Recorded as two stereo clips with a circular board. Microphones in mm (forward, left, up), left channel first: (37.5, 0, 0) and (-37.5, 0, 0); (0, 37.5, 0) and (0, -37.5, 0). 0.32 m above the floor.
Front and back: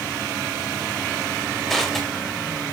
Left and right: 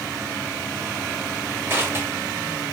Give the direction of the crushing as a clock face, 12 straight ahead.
3 o'clock.